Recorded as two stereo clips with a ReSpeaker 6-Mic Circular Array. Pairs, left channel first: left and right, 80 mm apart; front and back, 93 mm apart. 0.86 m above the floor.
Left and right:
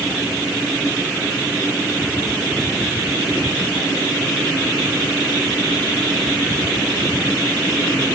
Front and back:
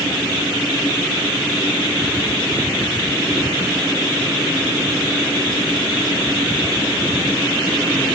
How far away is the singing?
I don't hear singing.